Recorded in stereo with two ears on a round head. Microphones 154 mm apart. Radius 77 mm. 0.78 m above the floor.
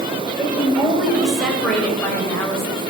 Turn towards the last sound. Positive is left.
turn(degrees=20)  # may be behind; listen again after turning